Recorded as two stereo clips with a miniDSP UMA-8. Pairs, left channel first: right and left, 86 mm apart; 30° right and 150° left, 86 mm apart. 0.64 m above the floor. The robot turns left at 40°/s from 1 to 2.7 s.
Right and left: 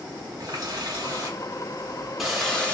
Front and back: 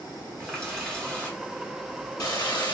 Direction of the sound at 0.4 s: 50° left.